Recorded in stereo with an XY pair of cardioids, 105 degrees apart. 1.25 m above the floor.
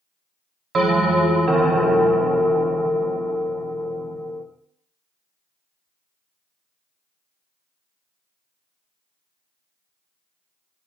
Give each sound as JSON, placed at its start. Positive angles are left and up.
{"t": 0.7, "sound": "a bell", "azimuth_deg": -45, "distance_m": 1.0}